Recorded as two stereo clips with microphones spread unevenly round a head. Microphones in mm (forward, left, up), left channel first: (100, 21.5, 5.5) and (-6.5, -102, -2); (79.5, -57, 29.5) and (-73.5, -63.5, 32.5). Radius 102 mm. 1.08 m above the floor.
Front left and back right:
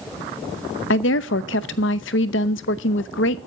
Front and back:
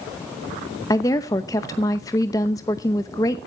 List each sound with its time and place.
0.9 s a woman speaking: 75° left, 0.7 m